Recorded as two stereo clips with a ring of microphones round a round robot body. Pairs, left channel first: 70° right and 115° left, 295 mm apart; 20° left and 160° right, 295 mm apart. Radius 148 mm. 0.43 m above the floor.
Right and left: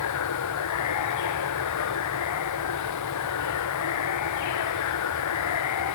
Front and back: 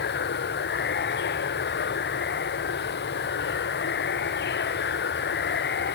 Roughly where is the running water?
Ahead right.